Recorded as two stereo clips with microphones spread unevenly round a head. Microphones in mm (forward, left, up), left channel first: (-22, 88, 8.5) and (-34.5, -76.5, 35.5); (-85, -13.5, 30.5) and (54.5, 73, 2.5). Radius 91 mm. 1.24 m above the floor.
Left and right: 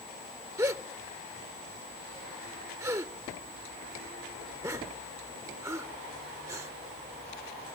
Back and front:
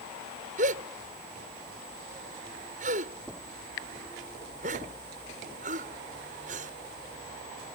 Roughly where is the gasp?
Ahead.